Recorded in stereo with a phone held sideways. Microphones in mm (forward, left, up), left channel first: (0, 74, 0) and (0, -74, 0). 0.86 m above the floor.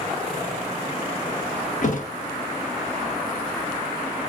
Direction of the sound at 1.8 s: 60° left (ahead or behind).